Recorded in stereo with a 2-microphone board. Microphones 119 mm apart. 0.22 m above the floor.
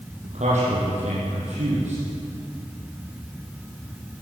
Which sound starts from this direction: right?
A man speaking, at 0.2 s.